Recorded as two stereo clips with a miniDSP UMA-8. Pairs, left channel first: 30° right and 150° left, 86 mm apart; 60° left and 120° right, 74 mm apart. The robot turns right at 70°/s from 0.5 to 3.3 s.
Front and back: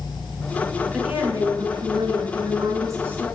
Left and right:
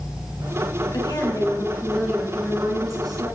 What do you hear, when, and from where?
0.9 s a woman speaking: 60° left, 5 m; by 3.3 s 135° right, 5 m